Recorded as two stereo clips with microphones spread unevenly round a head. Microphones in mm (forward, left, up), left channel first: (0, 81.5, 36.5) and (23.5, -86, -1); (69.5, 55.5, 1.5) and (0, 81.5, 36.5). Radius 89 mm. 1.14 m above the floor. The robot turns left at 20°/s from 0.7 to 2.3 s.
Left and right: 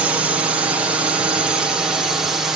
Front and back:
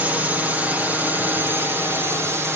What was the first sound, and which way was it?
A drone, 90° right.